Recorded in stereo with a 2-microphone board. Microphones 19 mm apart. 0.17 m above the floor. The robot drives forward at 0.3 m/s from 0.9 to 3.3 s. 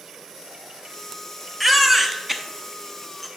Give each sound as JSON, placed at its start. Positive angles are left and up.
{"t": 1.6, "sound": "a baby crying", "side_deg": -5, "distance_m": 0.6}